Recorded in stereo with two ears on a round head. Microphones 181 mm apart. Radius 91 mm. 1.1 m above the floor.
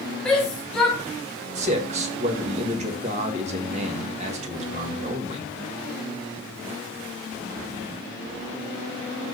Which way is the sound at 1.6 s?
35° right (ahead or behind).